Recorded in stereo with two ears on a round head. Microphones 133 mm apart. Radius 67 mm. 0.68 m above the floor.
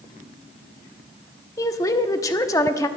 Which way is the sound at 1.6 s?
20° left (ahead or behind).